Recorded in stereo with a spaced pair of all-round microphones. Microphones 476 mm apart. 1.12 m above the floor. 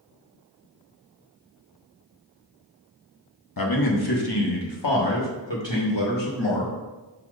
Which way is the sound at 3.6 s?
45° left (ahead or behind).